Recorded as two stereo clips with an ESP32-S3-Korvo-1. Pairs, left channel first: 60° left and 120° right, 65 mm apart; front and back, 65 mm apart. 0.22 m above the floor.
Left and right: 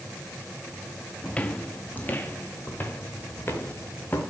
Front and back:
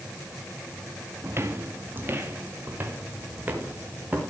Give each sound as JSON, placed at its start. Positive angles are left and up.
{"t": 1.2, "sound": "footsteps", "azimuth_deg": 130, "distance_m": 1.6}